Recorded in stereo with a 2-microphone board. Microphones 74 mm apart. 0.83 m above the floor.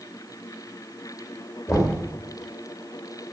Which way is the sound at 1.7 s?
30° left (ahead or behind).